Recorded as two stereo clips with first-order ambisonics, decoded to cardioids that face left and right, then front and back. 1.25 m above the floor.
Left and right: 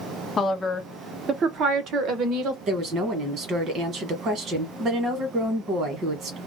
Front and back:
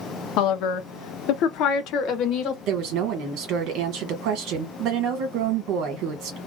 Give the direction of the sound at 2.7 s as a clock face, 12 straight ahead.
5 o'clock.